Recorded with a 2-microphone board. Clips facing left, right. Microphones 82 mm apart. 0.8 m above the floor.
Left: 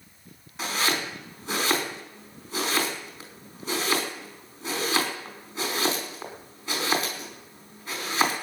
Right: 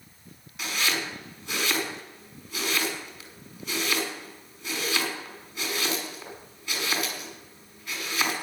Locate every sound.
0.6 s chopping: 35° left (ahead or behind), 4.5 m